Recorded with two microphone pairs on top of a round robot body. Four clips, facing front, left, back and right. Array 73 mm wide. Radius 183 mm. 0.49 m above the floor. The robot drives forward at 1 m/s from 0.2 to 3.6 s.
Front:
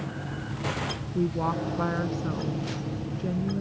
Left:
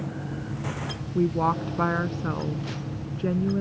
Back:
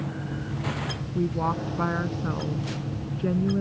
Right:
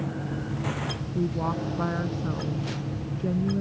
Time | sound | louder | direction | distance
1.1 | a woman speaking | left 5 dB, back 1 dB | 105° left | ?